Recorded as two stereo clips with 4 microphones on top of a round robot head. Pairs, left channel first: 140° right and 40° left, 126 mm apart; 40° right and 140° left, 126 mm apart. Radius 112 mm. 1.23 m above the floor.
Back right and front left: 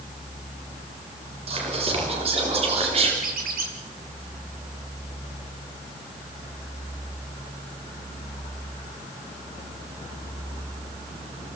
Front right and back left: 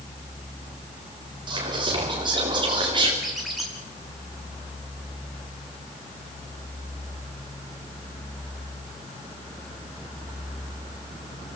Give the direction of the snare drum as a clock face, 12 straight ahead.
I don't hear a snare drum.